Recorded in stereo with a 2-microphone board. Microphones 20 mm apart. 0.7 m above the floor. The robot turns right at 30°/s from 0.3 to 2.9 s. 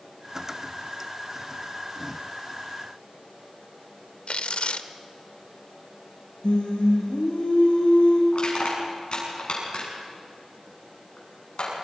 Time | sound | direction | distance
4.3 | tearing paper | 75° left (ahead or behind) | 0.9 m
6.4 | singing | 75° left (ahead or behind) | 5.5 m
8.3 | crushing | 60° left (ahead or behind) | 7 m